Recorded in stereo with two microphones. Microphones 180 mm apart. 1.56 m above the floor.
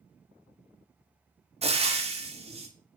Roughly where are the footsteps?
I don't hear footsteps.